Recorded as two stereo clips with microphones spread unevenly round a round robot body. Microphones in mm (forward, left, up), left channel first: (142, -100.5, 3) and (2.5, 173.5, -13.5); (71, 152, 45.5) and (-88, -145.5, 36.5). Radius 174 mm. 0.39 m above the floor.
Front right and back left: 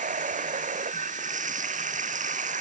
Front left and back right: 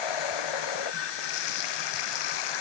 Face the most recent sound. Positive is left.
turn(degrees=50)